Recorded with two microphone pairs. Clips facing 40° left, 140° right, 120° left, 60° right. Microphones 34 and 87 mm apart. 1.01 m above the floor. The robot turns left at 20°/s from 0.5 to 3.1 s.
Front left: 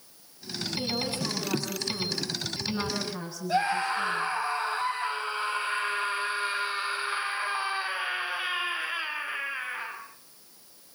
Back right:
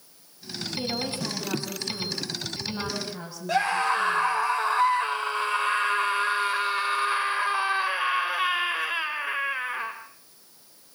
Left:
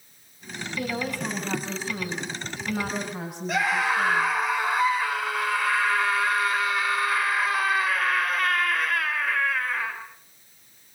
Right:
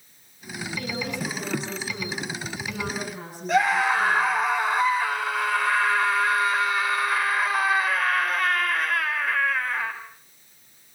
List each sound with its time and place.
0.8 s a woman speaking: straight behind, 7 m; by 4.4 s 135° left, 7 m
3.5 s a scream: 150° right, 5 m